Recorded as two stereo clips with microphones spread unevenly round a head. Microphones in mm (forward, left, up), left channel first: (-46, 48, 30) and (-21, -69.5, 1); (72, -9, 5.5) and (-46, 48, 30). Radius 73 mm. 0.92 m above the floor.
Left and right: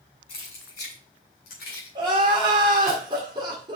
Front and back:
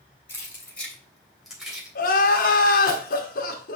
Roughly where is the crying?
Ahead.